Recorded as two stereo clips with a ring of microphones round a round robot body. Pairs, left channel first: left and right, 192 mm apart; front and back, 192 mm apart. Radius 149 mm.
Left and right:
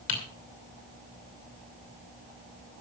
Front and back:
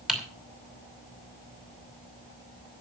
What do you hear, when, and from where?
0.1 s typing on a keyboard: 95° left, 6 m